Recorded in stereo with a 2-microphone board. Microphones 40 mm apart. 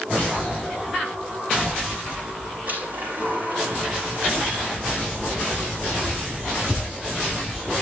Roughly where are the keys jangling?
Left.